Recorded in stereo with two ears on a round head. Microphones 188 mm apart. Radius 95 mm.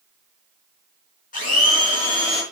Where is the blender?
40° left (ahead or behind), 4 m.